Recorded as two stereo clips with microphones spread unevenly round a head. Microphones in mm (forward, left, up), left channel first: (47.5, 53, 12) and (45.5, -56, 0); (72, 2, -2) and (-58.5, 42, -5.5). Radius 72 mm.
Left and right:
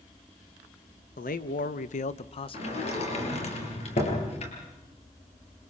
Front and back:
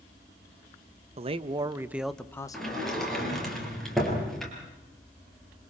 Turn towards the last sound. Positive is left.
turn(degrees=70)